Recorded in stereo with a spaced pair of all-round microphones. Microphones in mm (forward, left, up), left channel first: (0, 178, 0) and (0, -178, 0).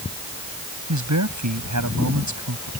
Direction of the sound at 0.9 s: 55° right (ahead or behind).